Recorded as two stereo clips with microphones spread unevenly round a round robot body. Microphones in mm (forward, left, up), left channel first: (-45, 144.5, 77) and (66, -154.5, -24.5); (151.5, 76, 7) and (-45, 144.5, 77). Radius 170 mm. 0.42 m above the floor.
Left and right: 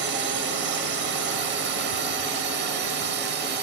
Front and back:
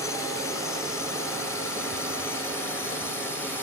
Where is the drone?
70° right; by 3.6 s 75° right.